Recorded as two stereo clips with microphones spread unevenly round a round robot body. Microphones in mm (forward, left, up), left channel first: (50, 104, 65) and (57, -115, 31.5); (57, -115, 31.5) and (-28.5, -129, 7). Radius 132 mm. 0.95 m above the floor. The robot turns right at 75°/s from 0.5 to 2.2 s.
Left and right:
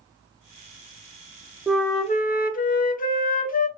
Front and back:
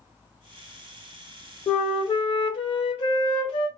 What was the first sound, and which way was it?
A flute, 5° right.